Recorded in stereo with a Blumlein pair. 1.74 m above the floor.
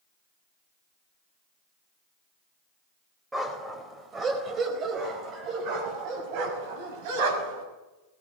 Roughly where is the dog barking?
Ahead.